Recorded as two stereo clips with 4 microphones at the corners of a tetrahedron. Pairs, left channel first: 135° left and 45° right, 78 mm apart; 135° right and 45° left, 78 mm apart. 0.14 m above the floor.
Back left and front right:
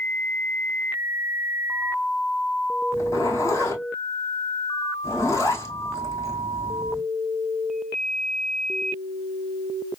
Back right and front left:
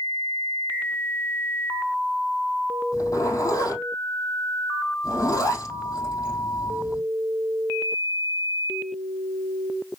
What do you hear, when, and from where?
2.9 s a zipper: 175° right, 3.5 m